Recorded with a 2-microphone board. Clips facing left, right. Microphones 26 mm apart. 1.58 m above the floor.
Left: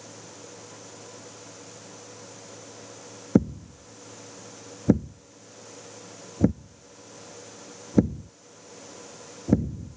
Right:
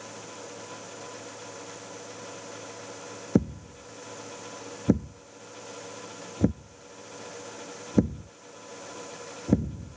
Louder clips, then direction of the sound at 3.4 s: Left 3 dB; 10° left (ahead or behind).